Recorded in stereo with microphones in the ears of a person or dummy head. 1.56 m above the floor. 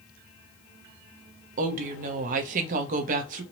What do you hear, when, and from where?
1.6 s a woman speaking: 45° right (ahead or behind), 0.7 m